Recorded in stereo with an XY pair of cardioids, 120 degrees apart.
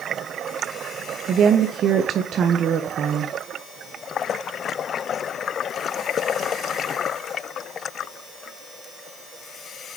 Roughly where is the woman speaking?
Ahead right.